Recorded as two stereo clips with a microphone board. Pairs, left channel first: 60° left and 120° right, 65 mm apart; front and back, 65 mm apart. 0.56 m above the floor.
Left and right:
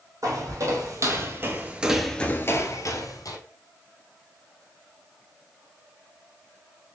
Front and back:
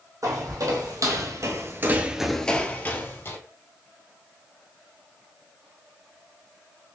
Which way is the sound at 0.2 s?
150° right.